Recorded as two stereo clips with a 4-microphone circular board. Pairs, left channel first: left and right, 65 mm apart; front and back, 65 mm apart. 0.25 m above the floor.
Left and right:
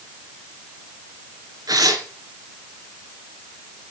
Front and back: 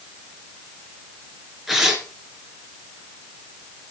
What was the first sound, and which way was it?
Tearing paper, 90° right.